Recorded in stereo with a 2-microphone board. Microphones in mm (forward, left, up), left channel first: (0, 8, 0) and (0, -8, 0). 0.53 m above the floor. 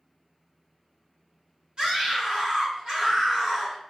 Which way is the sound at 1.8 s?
55° right (ahead or behind).